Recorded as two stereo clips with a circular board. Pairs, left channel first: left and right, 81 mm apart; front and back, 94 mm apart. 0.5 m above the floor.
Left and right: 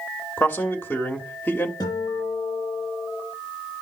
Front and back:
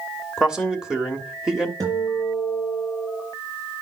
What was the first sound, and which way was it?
A man speaking, 105° left.